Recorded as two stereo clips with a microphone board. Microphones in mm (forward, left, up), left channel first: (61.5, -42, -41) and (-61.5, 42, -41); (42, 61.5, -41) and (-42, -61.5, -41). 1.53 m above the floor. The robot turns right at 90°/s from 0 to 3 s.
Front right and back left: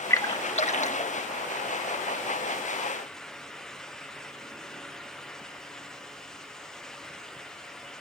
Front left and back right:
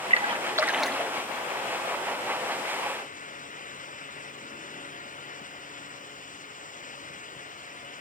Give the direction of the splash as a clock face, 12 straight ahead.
3 o'clock.